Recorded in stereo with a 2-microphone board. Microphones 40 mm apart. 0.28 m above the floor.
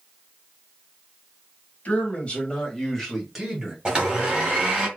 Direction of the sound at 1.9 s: 40° left (ahead or behind).